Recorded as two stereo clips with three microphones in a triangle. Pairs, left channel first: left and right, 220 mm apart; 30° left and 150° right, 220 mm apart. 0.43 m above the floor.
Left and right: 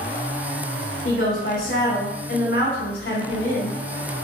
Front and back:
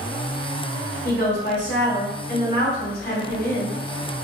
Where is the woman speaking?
65° left, 1.8 m.